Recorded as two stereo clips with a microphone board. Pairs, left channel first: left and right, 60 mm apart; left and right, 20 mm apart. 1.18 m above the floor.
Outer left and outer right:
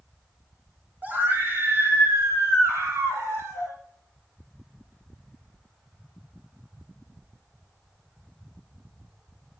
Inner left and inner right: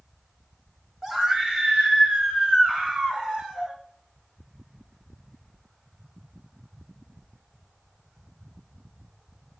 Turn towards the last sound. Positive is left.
turn(degrees=-55)  # may be behind; listen again after turning